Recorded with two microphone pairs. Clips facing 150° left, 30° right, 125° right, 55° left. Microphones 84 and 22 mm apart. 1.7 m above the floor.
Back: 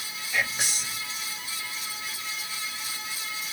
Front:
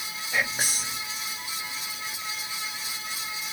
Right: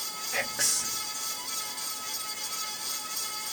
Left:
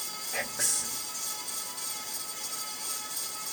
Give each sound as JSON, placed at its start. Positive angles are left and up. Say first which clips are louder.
{"t": 0.3, "sound": "whispering", "louder": "front 1 dB, right 3 dB", "azimuth_deg": -75, "distance_m": 1.3}